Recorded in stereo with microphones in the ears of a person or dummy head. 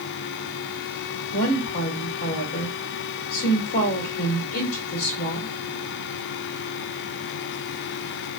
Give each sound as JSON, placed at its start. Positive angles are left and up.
{"t": 1.3, "sound": "a woman speaking", "side_deg": 65, "distance_m": 1.4}